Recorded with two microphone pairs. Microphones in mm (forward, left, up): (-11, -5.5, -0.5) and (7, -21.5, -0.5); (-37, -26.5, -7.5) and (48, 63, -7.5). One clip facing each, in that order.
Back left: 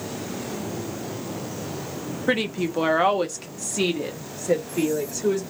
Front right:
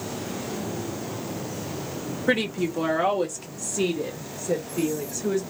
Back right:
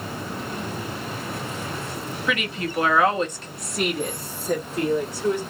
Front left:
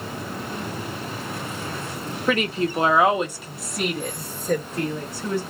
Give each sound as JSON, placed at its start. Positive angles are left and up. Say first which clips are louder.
{"t": 2.3, "sound": "a woman speaking", "louder": "even, front left 6 dB", "azimuth_deg": 50, "distance_m": 0.6}